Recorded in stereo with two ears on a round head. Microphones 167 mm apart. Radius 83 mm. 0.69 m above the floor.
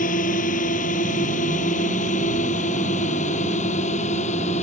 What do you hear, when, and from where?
0.0 s a drone: 45° left (ahead or behind); by 4.6 s 40° left (ahead or behind)